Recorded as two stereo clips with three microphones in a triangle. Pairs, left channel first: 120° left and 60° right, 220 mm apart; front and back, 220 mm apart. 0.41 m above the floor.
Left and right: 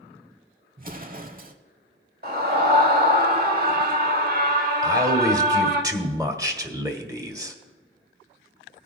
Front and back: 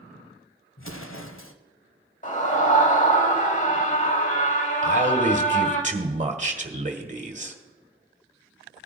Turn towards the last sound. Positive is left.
turn(degrees=-130)